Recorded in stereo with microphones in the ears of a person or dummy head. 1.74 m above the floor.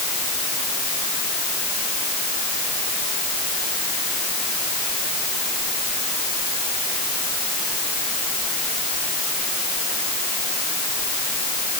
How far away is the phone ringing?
I don't hear a phone ringing.